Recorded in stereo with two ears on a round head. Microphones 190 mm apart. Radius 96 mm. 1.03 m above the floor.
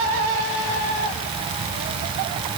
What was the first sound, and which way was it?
Only background noise.